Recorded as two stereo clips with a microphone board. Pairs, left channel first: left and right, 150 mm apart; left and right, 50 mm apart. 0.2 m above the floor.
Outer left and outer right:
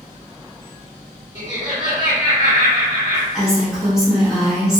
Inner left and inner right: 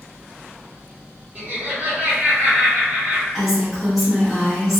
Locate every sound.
1.4 s laughter: 30° right (ahead or behind), 1.5 m
3.3 s a woman speaking: 5° right (ahead or behind), 0.9 m